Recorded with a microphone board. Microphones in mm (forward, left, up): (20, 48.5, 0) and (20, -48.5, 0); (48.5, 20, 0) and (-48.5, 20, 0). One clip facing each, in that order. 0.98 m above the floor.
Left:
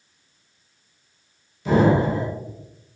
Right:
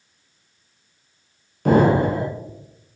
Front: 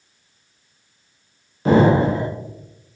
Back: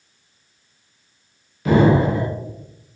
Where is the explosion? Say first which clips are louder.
Right 2 dB, front 1 dB; 55° right, 0.6 m.